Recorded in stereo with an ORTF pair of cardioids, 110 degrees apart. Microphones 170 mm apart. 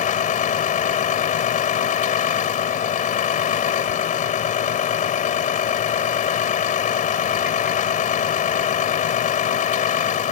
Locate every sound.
0.0 s a vehicle: 50° left